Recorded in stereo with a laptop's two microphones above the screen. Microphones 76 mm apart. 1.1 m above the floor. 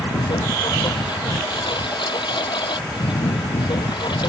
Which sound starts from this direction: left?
A lawn mower, at 0.0 s.